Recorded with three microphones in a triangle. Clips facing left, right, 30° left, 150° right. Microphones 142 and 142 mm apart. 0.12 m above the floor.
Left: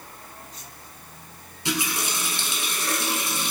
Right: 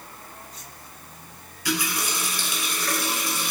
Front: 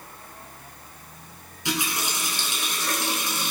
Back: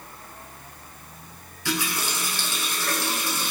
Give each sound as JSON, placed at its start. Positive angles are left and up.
{"t": 1.6, "sound": "a running tap", "azimuth_deg": 75, "distance_m": 0.8}